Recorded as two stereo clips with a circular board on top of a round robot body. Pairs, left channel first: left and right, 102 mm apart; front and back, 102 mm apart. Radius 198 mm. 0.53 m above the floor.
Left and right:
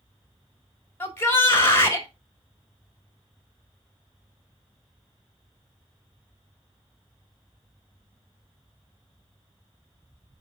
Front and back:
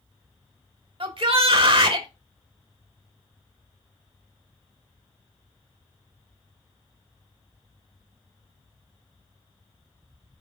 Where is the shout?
155° left, 3 m.